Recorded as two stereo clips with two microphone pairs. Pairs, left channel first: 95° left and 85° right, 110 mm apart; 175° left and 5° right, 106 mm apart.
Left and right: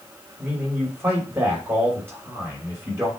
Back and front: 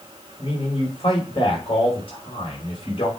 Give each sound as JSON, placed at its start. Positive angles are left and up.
{"t": 0.4, "sound": "a man speaking", "azimuth_deg": -150, "distance_m": 5.0}